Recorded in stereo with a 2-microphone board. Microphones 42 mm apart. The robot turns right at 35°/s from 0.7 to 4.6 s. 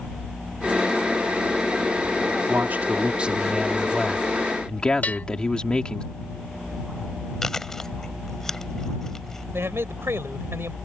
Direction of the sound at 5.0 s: 40° left (ahead or behind).